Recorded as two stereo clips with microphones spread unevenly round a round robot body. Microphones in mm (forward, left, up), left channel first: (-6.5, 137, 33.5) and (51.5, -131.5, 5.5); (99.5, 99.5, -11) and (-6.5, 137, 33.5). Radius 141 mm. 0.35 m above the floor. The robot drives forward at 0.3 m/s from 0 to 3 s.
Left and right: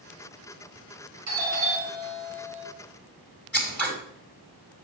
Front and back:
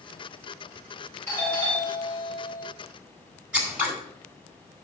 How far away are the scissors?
About 2 m.